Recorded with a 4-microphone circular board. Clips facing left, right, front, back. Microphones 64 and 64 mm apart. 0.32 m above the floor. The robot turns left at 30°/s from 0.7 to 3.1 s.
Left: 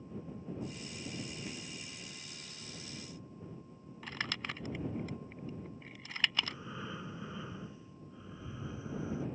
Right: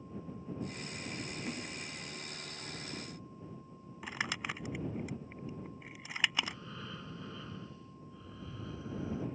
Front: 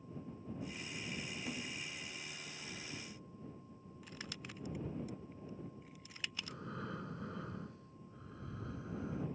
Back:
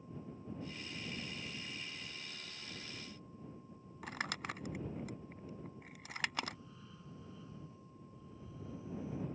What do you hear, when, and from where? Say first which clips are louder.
1.5 s a splash: right 4 dB, front 3 dB; 30° right; by 1.8 s 40° right
4.0 s crumpling: right 2 dB, back 9 dB; 165° right
6.4 s breathing: even, back 1 dB; 15° left